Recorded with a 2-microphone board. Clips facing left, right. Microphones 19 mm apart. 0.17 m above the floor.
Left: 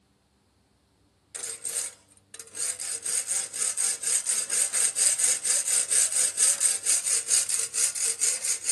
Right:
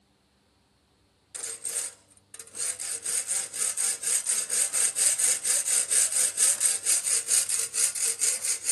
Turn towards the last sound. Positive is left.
turn(degrees=20)  # may be behind; listen again after turning